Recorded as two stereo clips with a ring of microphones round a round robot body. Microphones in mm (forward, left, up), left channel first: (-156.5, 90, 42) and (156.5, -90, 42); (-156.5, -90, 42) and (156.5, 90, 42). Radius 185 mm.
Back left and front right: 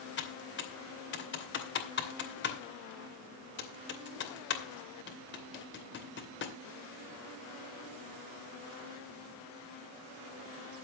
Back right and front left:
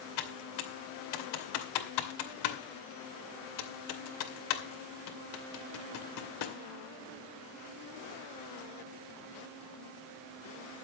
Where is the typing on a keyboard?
150° right, 2.5 m.